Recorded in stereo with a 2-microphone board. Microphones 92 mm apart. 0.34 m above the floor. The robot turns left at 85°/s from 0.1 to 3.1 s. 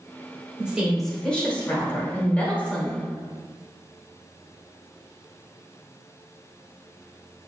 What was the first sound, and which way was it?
A woman speaking, 10° right (ahead or behind).